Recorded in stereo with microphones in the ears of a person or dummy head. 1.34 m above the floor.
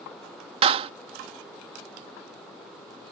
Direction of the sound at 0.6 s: 35° right (ahead or behind).